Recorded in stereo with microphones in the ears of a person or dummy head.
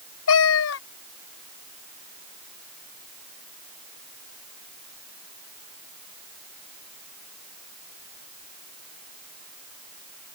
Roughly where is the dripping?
I don't hear dripping.